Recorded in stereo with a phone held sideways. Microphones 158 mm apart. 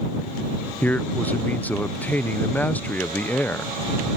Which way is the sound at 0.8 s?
10° left (ahead or behind).